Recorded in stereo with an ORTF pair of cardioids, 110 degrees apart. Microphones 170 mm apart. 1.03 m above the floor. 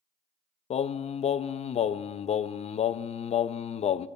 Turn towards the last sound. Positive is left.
turn(degrees=40)